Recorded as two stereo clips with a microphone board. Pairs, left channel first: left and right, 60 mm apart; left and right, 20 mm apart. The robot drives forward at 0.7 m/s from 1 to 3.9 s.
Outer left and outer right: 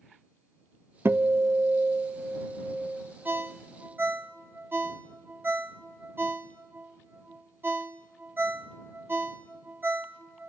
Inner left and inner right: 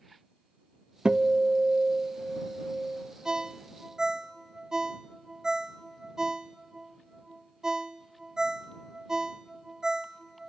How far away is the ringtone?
About 0.6 m.